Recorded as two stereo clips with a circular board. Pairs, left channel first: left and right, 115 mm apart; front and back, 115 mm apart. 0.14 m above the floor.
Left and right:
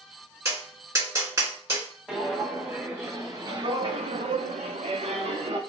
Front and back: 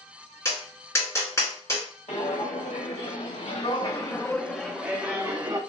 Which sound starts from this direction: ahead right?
Tapping, at 0.5 s.